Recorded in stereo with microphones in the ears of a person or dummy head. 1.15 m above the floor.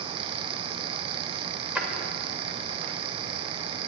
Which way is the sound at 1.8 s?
10° right (ahead or behind).